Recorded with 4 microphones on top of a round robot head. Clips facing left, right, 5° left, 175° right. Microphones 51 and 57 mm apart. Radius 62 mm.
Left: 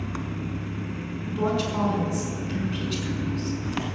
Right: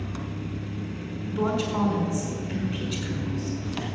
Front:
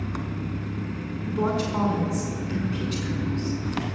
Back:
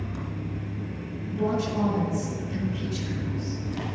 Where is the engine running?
30° left, 1.4 m.